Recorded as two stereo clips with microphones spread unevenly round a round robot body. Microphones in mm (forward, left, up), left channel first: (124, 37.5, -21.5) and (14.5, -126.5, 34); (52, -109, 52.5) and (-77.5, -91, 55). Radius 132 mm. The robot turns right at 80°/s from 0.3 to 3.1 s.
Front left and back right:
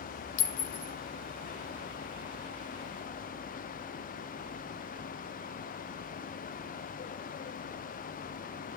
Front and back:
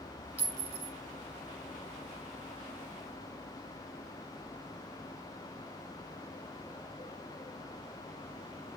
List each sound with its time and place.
0.4 s a clink: 90° left, 0.7 m; by 0.9 s 135° left, 0.7 m